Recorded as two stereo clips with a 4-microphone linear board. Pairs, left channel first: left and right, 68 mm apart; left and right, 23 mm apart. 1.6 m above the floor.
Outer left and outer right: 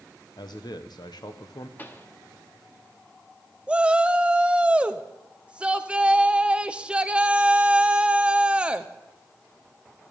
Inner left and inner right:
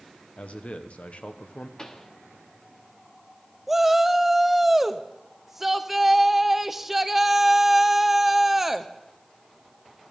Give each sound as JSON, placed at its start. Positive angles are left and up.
{"t": 0.4, "sound": "a man speaking", "side_deg": 80, "distance_m": 1.1}
{"t": 1.8, "sound": "a pop", "side_deg": 30, "distance_m": 1.2}
{"t": 3.7, "sound": "a shout", "side_deg": -15, "distance_m": 0.8}